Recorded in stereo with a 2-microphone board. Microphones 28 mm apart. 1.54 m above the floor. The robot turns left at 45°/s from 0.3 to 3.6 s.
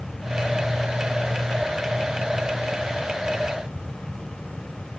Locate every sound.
Only background noise.